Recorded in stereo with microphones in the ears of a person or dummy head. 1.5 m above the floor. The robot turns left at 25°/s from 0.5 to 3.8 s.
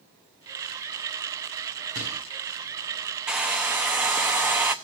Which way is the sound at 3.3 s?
Centre (ahead or behind).